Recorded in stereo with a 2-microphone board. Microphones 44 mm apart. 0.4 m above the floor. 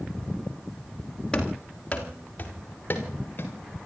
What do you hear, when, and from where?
1.3 s running footsteps: 20° left (ahead or behind), 5 m; by 3.5 s 50° left (ahead or behind), 6.5 m